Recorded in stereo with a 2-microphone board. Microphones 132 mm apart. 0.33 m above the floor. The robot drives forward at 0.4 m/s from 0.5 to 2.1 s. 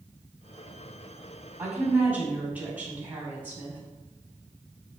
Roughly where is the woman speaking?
Centre.